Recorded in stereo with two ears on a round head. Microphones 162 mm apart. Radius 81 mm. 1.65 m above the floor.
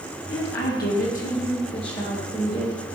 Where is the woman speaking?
65° left (ahead or behind), 1.7 m; by 2.8 s 15° left (ahead or behind), 2.0 m.